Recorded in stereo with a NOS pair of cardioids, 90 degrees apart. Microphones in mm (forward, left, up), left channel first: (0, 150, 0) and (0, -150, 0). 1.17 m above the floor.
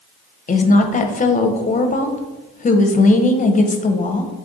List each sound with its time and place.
0.5 s a woman speaking: 25° left, 0.7 m